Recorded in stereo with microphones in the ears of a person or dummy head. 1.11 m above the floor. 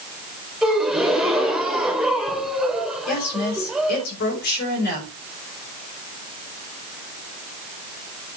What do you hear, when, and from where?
0.6 s a gasp: centre (ahead or behind), 1.5 m
3.1 s a woman speaking: 55° left (ahead or behind), 4 m